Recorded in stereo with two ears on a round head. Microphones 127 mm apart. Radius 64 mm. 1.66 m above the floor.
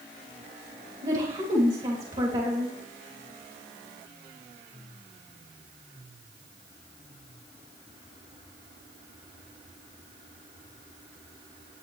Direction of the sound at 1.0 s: 40° right (ahead or behind).